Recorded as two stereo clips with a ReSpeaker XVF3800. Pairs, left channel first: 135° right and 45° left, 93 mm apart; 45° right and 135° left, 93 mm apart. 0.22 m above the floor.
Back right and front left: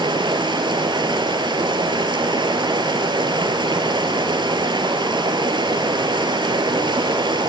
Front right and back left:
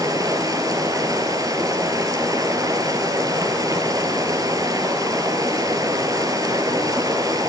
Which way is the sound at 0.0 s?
85° left.